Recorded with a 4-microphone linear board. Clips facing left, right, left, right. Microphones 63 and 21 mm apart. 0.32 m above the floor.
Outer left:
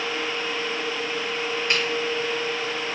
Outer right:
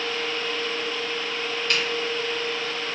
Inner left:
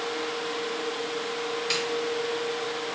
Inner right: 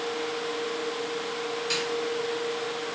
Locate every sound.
1.7 s a snare drum: 25° left (ahead or behind), 1.6 m